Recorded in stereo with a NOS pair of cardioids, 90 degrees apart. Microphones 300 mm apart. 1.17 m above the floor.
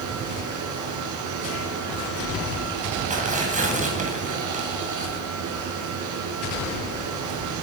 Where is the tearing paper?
25° right, 9.5 m.